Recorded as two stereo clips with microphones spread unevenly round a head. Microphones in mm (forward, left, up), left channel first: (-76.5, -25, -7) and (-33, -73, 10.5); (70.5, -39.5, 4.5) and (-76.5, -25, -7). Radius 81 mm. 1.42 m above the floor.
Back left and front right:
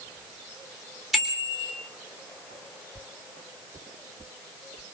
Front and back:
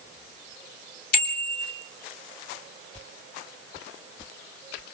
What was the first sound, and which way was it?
A bicycle bell, 35° left.